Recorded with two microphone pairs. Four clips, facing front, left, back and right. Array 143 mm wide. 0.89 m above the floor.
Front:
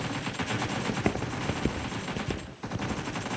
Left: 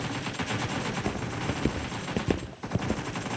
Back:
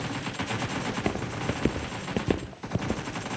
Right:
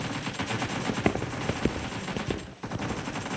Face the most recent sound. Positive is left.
turn(degrees=140)